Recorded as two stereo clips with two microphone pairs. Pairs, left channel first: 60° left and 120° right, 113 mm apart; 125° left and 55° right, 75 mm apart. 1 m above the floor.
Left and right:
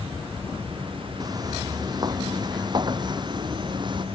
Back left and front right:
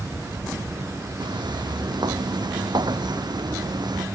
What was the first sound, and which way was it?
Footsteps, 65° right.